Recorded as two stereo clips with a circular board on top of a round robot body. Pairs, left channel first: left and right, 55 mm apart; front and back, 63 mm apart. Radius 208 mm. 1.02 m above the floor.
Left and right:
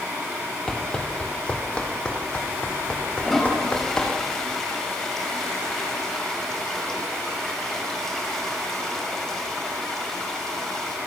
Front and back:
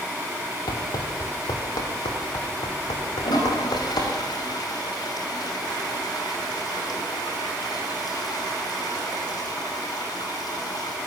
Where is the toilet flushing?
10° left, 5.5 m.